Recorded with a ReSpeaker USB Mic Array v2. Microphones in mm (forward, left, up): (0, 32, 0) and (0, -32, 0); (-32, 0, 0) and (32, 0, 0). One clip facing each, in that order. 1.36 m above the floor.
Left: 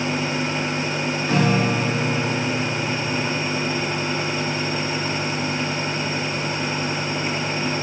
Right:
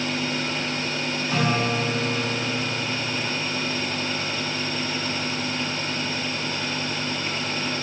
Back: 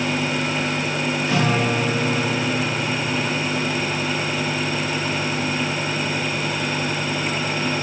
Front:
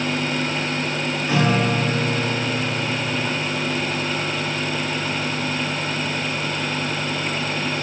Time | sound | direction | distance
1.3 | a guitar | 85° left | 2.5 m